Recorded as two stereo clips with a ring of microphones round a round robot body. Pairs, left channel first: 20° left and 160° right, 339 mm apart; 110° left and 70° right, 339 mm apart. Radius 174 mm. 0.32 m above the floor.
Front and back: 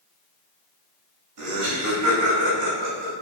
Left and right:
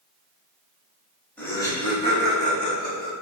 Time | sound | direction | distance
1.4 | laughter | 165° right | 1.9 m